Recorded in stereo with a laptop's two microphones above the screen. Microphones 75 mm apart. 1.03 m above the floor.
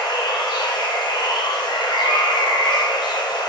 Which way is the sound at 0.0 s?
70° left (ahead or behind).